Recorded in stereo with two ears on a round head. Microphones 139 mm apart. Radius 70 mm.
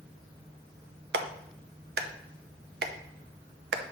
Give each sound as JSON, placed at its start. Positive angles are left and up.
{"t": 1.1, "sound": "a clap", "side_deg": -75, "distance_m": 0.7}